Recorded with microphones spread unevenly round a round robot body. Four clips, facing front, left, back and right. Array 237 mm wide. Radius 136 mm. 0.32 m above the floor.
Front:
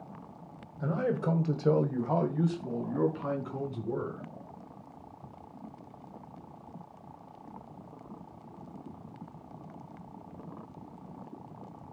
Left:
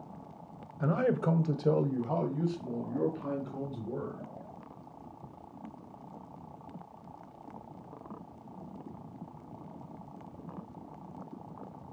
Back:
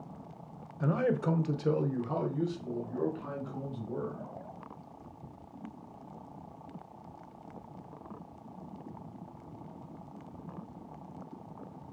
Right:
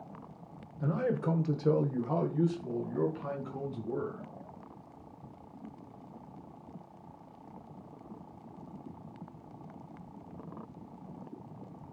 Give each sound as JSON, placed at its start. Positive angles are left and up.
{"t": 0.8, "sound": "a man speaking", "azimuth_deg": 85, "distance_m": 1.5}